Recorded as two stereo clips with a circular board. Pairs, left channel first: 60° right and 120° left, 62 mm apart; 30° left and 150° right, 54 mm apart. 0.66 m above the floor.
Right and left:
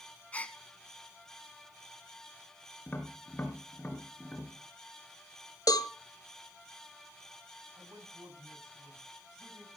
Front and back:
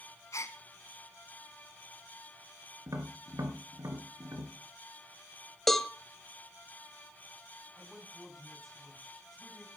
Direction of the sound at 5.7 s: 55° right.